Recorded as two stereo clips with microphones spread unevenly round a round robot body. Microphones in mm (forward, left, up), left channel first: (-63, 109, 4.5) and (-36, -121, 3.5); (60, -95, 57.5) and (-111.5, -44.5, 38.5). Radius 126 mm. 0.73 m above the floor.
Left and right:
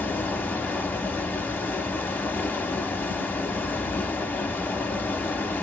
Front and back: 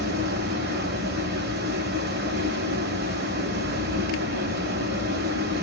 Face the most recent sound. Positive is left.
turn(degrees=175)